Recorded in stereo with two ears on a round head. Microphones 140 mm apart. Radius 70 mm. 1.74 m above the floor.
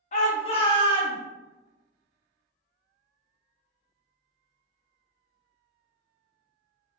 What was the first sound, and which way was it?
A shout, 45° left (ahead or behind).